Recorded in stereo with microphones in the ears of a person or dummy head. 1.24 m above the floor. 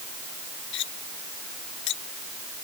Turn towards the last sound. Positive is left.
turn(degrees=60)  # may be behind; listen again after turning